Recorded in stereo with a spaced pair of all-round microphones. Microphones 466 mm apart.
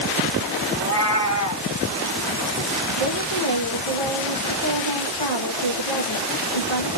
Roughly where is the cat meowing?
Left.